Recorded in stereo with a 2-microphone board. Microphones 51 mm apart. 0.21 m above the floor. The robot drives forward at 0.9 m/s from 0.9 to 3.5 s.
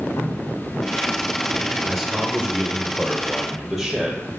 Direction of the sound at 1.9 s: Centre (ahead or behind).